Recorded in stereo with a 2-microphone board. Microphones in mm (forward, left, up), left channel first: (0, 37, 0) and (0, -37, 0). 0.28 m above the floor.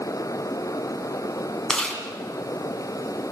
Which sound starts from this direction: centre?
Chewing, at 1.7 s.